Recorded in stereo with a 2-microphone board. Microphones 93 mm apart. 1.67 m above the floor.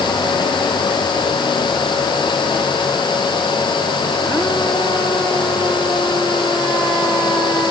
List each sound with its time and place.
Only background noise.